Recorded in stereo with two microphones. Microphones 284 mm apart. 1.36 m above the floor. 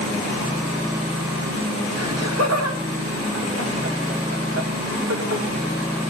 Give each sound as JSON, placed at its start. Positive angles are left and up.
{"t": 2.0, "sound": "laughter", "side_deg": -65, "distance_m": 2.0}